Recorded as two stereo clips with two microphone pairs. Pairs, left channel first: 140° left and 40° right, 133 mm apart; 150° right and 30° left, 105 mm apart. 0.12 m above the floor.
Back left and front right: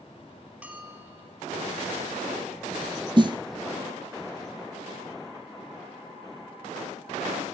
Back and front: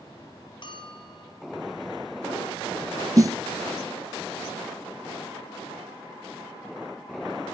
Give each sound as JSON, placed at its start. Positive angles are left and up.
{"t": 0.6, "sound": "a bell", "azimuth_deg": -120, "distance_m": 2.5}
{"t": 3.2, "sound": "a snare drum", "azimuth_deg": -5, "distance_m": 0.6}